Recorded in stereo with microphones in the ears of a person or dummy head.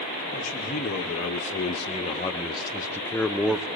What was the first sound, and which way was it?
A man speaking, 45° left (ahead or behind).